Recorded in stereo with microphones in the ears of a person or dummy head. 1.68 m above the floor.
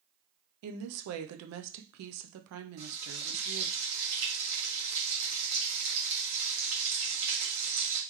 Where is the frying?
75° right (ahead or behind), 1.9 m.